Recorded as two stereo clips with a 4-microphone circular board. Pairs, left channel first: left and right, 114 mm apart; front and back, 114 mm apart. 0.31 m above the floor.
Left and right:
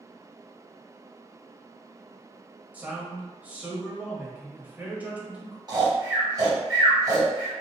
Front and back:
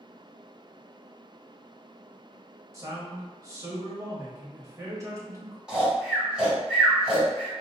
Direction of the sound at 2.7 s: 155° right.